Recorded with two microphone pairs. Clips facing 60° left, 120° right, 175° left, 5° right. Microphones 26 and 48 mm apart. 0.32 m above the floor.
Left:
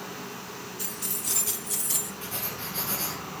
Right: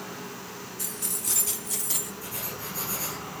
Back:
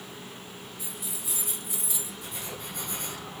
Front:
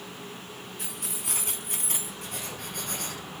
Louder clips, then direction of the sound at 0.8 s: Right 1 dB, front 2 dB; 20° right.